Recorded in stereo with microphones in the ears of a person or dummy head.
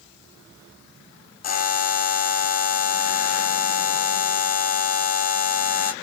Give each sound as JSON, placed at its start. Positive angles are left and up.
{"t": 1.4, "sound": "a buzzer", "side_deg": 35, "distance_m": 0.5}